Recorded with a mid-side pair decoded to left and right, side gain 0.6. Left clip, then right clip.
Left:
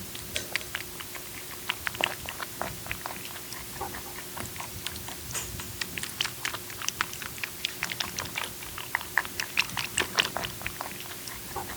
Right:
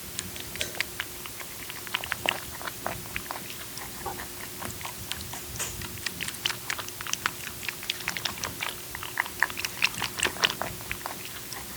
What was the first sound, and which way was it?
Only background noise.